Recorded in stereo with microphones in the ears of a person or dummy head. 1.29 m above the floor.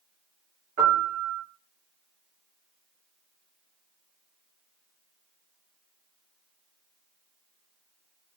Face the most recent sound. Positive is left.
turn(degrees=-55)  # may be behind; listen again after turning